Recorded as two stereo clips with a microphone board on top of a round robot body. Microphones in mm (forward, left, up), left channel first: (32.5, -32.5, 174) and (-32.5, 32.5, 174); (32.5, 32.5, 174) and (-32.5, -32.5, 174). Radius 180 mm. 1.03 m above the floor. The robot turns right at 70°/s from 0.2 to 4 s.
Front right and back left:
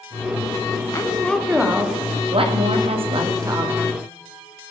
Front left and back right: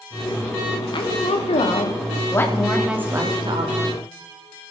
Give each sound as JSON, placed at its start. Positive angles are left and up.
{"t": 0.9, "sound": "a woman speaking", "azimuth_deg": 10, "distance_m": 3.0}